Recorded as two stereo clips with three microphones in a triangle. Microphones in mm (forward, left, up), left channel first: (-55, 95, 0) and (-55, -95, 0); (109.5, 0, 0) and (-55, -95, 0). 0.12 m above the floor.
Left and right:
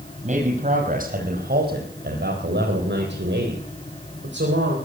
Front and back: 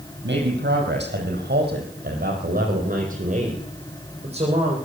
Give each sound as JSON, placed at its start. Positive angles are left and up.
{"t": 0.2, "sound": "a man speaking", "azimuth_deg": -140, "distance_m": 4.5}